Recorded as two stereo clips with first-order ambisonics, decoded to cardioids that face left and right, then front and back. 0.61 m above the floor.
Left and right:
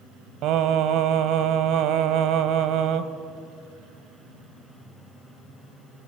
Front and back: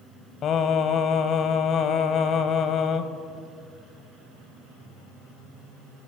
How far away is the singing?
About 0.9 m.